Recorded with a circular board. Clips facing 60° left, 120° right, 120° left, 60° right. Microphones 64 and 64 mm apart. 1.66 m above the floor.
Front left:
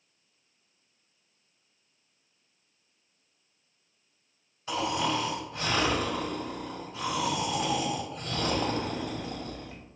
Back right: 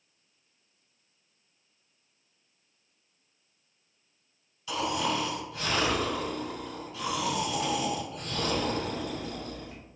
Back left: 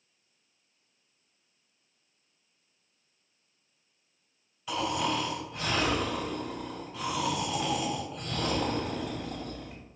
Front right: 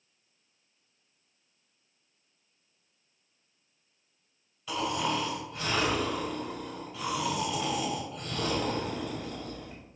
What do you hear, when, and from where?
4.7 s snoring: 35° left, 1.8 m